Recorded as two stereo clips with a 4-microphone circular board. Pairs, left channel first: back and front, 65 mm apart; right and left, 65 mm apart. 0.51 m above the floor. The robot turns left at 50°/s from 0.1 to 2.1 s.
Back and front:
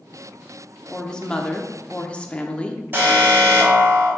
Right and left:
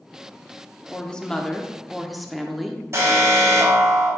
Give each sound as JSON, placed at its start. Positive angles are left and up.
{"t": 0.9, "sound": "a woman speaking", "azimuth_deg": -125, "distance_m": 0.8}
{"t": 2.9, "sound": "an alarm", "azimuth_deg": 55, "distance_m": 3.5}